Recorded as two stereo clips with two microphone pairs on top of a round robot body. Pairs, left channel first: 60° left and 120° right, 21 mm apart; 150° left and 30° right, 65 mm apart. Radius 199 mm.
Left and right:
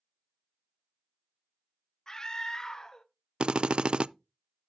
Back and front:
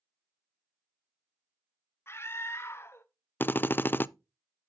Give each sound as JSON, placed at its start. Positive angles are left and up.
{"t": 2.1, "sound": "a scream", "azimuth_deg": 115, "distance_m": 1.6}
{"t": 3.4, "sound": "a drill", "azimuth_deg": -150, "distance_m": 0.5}